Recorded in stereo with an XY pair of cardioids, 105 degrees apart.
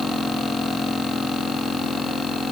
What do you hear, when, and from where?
Only background noise.